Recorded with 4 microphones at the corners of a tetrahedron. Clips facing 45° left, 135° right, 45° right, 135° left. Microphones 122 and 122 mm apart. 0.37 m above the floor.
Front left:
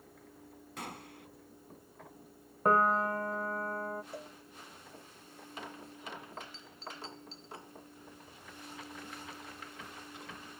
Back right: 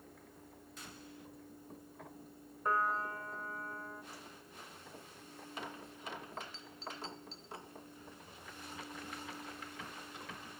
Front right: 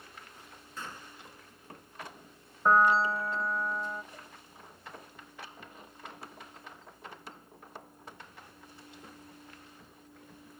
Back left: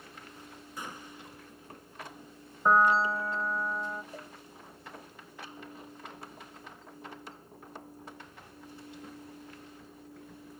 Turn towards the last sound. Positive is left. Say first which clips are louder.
# front left 8 dB, back left 5 dB
turn(degrees=75)